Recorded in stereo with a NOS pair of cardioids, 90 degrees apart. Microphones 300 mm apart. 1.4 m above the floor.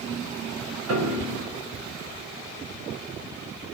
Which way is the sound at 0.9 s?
60° right.